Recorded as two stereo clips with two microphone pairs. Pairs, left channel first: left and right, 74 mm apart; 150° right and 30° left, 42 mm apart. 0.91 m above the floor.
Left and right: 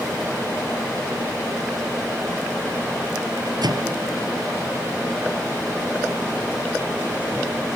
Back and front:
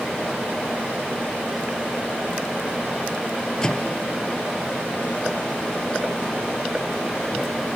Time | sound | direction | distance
3.6 | a microwave | 80° right | ?